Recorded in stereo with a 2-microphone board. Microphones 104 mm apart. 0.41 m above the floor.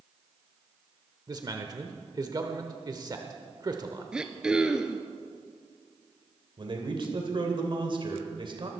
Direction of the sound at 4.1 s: 5° right (ahead or behind).